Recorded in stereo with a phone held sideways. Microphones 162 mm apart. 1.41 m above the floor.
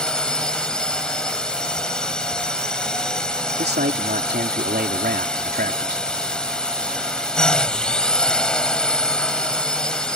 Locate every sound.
0.0 s a drone: 5° left (ahead or behind)
3.6 s a man speaking: 90° right